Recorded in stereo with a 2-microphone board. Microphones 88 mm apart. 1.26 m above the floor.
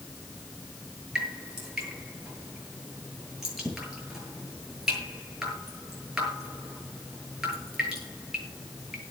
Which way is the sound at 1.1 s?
5° right (ahead or behind).